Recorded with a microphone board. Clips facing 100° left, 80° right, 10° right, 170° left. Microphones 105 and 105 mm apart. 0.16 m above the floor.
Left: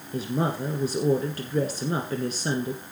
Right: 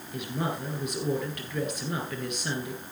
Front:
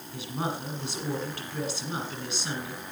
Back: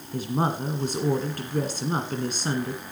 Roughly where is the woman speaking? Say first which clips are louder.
Left 5 dB, back 7 dB; behind left.